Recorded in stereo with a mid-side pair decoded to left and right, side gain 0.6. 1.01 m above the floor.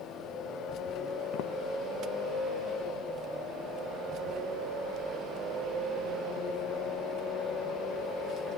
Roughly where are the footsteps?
Ahead left.